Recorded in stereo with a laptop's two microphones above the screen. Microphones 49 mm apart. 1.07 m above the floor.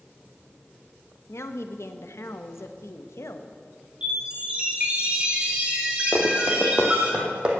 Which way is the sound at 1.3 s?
80° left.